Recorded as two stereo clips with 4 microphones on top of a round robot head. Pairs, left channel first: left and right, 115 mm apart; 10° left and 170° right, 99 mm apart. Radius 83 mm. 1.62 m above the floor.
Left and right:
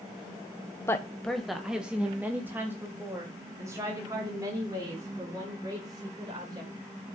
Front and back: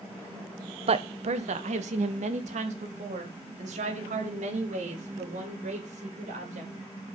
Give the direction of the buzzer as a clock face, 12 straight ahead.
I don't hear a buzzer.